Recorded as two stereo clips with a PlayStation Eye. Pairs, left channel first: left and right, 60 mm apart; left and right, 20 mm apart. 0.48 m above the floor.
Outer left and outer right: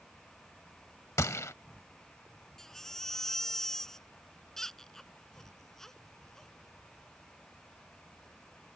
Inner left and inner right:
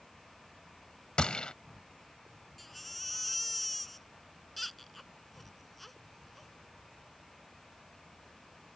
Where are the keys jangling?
No keys jangling in this recording.